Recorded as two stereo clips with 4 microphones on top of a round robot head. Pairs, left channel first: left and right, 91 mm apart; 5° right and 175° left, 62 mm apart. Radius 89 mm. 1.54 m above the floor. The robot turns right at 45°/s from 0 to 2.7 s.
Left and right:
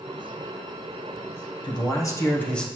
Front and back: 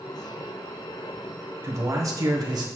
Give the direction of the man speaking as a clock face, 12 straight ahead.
8 o'clock.